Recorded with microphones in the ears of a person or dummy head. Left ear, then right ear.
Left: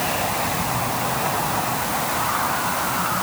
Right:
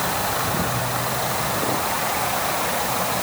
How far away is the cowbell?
I don't hear a cowbell.